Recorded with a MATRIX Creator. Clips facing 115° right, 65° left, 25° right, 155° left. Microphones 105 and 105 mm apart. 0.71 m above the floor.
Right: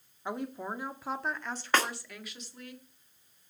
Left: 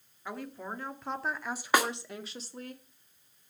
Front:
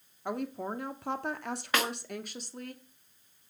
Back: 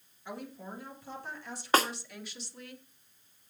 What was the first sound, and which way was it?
A woman speaking, 50° right.